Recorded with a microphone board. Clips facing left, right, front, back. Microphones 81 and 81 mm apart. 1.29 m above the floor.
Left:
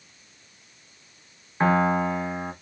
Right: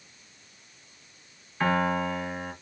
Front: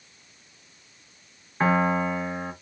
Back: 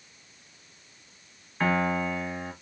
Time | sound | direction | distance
1.6 | a piano | 55° left | 1.2 m